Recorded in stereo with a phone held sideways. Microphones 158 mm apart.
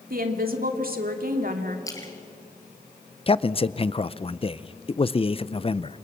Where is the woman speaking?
65° right (ahead or behind), 2.5 m.